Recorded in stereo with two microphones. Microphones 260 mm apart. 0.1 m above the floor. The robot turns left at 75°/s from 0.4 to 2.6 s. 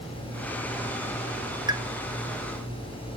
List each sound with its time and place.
1.7 s a pop: 15° right (ahead or behind), 0.9 m; by 1.8 s 20° right (ahead or behind), 0.9 m